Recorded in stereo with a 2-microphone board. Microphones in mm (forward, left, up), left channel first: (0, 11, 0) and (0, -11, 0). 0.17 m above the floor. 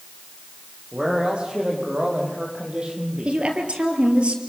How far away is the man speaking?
About 8.5 m.